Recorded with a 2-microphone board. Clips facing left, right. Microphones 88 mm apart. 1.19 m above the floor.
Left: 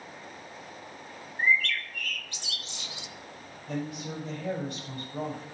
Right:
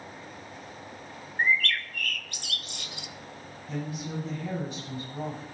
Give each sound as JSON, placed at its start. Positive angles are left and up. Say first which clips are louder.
{"t": 1.4, "sound": "a bird", "louder": "even", "side_deg": -55, "distance_m": 0.5}
{"t": 3.7, "sound": "a woman speaking", "louder": "even", "side_deg": 90, "distance_m": 6.0}